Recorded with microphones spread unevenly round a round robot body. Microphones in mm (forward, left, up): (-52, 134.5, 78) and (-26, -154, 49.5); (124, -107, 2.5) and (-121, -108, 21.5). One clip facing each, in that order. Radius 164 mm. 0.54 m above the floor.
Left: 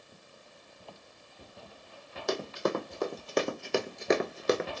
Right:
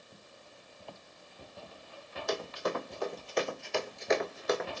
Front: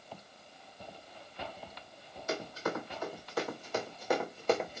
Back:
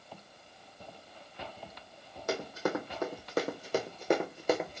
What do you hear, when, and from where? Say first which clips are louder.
2.3 s running footsteps: left 4 dB, back 3 dB; 130° left, 1.7 m; by 4.8 s 85° left, 0.5 m